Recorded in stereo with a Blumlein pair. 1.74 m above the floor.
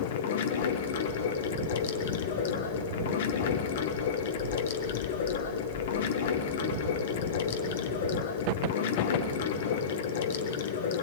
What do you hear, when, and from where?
0.0 s running water: 55° left, 1.4 m